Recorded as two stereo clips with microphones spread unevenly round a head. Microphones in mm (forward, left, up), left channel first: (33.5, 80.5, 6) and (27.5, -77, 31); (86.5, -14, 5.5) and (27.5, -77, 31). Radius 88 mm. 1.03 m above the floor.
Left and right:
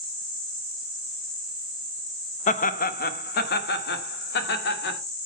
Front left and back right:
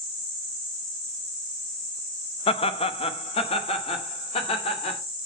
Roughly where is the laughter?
Ahead left.